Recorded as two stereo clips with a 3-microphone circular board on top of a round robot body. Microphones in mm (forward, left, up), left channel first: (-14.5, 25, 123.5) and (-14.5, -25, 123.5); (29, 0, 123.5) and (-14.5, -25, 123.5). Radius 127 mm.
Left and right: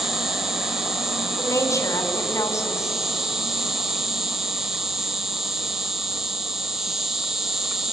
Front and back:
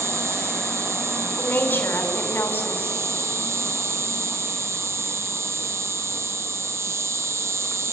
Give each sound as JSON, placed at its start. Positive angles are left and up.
{"t": 0.0, "sound": "an insect", "azimuth_deg": -175, "distance_m": 2.5}
{"t": 1.4, "sound": "a woman speaking", "azimuth_deg": 85, "distance_m": 3.5}